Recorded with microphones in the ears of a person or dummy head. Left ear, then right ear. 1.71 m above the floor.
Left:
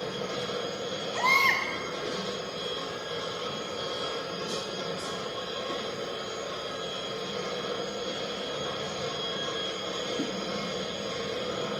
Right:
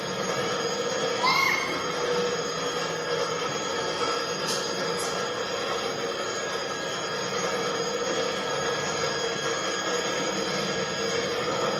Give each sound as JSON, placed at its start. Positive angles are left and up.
{"t": 0.0, "sound": "a machine running", "side_deg": -55, "distance_m": 0.7}
{"t": 1.1, "sound": "a baby crying", "side_deg": 15, "distance_m": 1.3}